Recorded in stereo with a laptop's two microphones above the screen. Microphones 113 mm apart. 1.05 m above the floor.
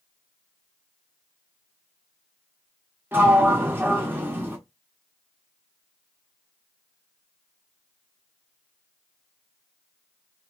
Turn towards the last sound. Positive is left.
turn(degrees=-20)  # may be behind; listen again after turning